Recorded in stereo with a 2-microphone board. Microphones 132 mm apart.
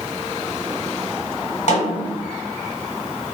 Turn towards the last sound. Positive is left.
turn(degrees=60)  # may be behind; listen again after turning